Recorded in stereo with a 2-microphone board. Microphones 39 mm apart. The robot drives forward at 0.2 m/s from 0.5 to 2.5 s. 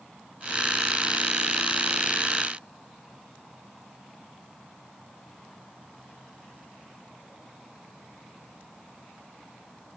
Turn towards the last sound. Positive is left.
No sound to turn to.